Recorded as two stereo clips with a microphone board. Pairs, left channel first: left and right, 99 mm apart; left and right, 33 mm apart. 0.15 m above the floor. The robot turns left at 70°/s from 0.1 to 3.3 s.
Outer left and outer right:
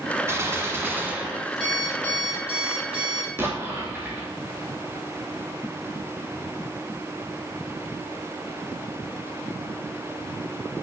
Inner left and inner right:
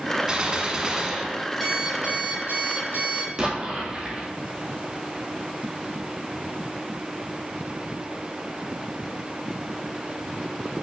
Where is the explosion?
25° right (ahead or behind), 1.9 m.